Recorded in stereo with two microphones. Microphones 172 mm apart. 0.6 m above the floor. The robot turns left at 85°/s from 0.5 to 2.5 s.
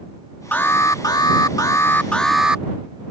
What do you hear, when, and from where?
0.5 s an alarm: 10° left (ahead or behind); by 2.6 s 5° right (ahead or behind)